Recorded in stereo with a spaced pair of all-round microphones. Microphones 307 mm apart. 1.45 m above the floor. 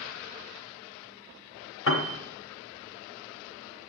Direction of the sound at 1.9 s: 40° left (ahead or behind).